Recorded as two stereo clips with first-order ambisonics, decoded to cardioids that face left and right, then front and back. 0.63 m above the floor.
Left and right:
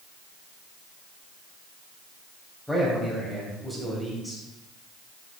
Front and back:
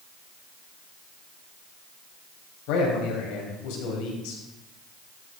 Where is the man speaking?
Straight ahead, 4 m.